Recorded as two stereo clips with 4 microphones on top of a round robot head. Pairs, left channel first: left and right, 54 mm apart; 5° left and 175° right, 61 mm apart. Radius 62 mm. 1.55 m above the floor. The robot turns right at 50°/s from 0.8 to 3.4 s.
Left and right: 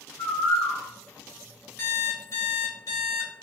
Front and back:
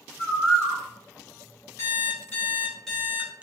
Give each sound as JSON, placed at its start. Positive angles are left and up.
{"t": 0.2, "sound": "a bird", "azimuth_deg": 45, "distance_m": 1.5}
{"t": 1.8, "sound": "an alarm clock", "azimuth_deg": 40, "distance_m": 1.2}